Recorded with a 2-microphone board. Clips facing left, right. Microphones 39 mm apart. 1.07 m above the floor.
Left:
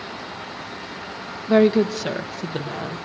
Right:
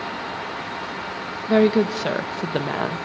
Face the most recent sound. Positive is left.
turn(degrees=-50)  # may be behind; listen again after turning